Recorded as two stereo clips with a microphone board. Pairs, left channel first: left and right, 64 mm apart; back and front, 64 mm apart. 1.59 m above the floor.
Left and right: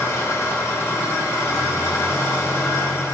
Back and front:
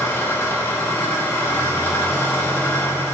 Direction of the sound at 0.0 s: 130° left.